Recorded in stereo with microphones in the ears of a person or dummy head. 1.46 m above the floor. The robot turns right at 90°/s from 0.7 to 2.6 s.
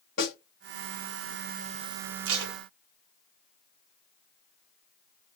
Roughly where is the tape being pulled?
Right.